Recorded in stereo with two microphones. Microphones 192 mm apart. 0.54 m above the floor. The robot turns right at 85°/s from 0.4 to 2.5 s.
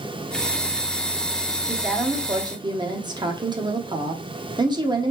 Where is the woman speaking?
5° left (ahead or behind), 0.7 m; by 5.1 s 25° right (ahead or behind), 0.7 m.